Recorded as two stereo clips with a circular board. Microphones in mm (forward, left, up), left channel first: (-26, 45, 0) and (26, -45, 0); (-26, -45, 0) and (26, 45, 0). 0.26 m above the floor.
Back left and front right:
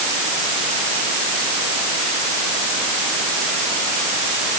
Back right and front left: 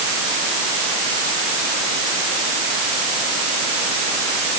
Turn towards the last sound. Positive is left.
No sound to turn to.